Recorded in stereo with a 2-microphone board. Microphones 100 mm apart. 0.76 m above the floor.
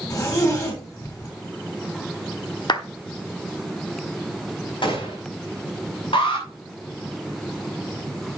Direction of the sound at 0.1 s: 35° left (ahead or behind).